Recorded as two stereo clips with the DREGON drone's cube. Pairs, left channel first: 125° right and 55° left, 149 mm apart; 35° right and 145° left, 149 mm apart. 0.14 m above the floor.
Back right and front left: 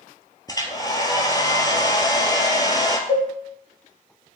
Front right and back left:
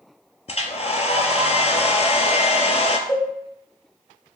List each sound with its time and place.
0.5 s a hair dryer: 65° right, 0.6 m
3.1 s a cowbell: 90° right, 1.5 m